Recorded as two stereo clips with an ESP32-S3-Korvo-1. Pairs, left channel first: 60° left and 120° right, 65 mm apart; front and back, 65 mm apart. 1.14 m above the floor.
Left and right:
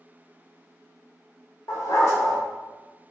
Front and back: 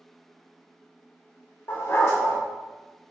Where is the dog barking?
35° left, 1.3 m.